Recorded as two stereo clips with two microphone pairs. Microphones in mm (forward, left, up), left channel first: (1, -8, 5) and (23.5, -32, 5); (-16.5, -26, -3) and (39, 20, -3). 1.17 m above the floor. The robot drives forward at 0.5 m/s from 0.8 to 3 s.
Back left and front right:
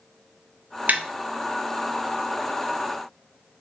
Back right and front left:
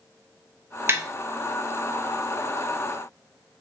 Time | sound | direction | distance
0.9 | tapping | 15° right | 0.7 m